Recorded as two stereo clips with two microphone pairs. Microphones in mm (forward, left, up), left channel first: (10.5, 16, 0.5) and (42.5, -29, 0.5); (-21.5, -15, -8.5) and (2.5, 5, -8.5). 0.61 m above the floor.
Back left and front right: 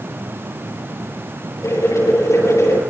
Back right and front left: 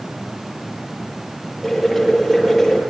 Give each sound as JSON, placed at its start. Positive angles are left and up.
{"t": 1.6, "sound": "boiling", "azimuth_deg": 135, "distance_m": 10.0}